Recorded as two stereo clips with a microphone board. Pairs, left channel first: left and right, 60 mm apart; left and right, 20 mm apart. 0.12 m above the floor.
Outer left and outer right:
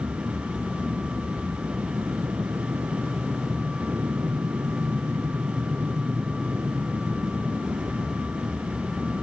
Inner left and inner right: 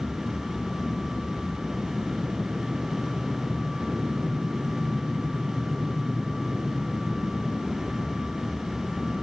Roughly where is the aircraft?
Right.